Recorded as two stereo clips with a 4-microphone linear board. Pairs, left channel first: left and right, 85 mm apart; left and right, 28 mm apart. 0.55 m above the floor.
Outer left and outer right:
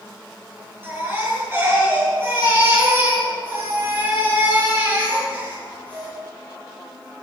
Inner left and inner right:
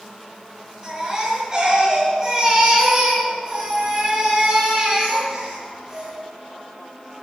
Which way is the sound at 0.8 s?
25° right (ahead or behind).